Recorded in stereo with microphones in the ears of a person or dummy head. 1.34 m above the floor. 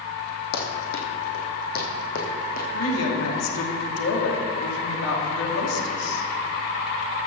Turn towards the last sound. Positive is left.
turn(degrees=85)